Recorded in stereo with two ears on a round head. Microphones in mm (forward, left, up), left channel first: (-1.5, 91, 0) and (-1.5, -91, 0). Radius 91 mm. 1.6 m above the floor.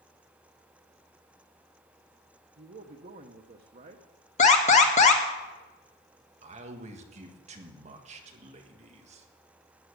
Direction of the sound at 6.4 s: 35° right (ahead or behind).